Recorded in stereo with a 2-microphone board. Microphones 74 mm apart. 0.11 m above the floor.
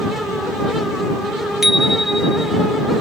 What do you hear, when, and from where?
1.6 s a bicycle bell: 5° right (ahead or behind)